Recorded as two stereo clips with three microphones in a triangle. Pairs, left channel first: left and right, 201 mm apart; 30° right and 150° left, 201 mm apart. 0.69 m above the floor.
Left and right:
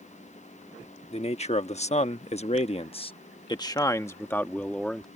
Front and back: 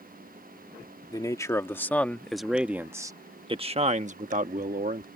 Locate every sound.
1.1 s a man speaking: 40° left; by 5.1 s 175° left